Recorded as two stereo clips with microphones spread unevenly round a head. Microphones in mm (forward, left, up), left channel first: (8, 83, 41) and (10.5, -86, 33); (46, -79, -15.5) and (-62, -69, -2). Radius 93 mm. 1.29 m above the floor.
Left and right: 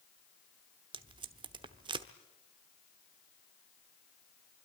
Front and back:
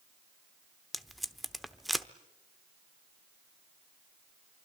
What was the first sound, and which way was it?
Tape being pulled, 115° right.